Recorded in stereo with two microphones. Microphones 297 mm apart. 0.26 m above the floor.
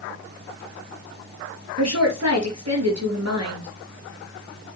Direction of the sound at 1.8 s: 60° right (ahead or behind).